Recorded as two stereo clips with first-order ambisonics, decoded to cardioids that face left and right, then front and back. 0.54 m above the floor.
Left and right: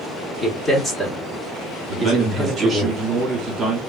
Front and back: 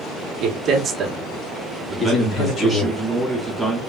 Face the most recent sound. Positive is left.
turn(degrees=-80)